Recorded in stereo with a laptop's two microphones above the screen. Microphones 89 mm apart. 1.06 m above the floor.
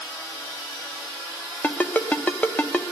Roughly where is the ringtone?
Centre.